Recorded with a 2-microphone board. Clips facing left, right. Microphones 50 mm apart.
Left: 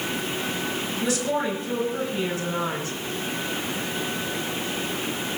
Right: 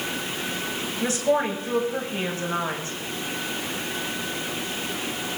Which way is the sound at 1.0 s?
40° right (ahead or behind).